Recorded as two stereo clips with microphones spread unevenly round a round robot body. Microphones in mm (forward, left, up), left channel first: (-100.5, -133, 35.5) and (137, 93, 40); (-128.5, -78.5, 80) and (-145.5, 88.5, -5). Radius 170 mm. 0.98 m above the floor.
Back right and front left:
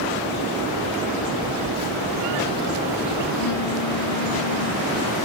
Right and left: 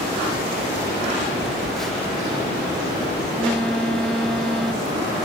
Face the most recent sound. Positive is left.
turn(degrees=-170)